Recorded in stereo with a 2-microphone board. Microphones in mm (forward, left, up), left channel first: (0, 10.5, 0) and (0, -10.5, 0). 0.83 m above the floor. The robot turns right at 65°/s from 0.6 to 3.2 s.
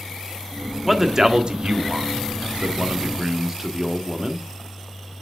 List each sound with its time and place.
0.8 s a man speaking: 5° right (ahead or behind), 1.4 m; by 4.5 s 20° right (ahead or behind), 1.4 m